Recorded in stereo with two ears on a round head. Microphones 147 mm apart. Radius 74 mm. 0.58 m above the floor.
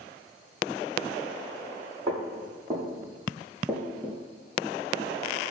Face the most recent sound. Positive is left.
turn(degrees=15)  # may be behind; listen again after turning